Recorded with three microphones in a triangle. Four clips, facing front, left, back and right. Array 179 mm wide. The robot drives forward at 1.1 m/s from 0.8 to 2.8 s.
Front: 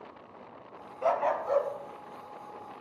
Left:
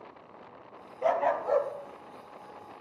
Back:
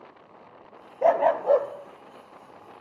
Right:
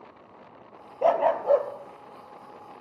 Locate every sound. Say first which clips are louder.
1.0 s a dog barking: right 5 dB, back 7 dB; 135° right, 1.0 m; by 2.8 s 165° right, 3 m